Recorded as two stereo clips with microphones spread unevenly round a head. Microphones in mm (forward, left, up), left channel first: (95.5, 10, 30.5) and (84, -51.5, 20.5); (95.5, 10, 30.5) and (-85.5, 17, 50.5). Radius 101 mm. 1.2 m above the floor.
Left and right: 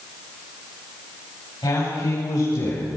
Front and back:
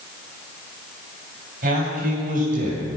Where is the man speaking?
135° left, 7 m; by 3.0 s 130° left, 5.5 m.